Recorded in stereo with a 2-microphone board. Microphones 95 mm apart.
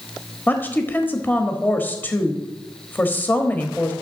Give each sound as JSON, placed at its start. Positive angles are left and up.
{"t": 0.5, "sound": "a woman speaking", "side_deg": 20, "distance_m": 1.1}